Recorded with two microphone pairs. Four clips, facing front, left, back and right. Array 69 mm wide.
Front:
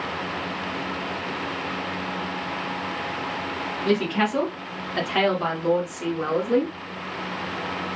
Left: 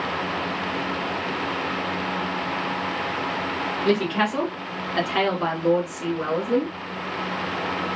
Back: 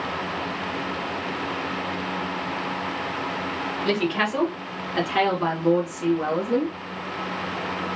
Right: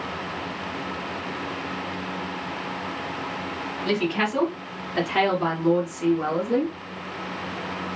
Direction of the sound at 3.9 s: 145° left.